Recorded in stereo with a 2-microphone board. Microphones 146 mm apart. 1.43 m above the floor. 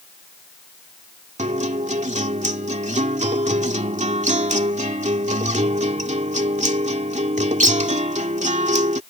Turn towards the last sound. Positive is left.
turn(degrees=-55)  # may be behind; listen again after turning